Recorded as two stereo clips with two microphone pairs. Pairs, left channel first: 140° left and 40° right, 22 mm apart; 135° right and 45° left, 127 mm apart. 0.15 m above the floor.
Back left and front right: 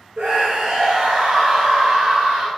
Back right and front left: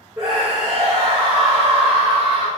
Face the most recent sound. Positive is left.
turn(degrees=-20)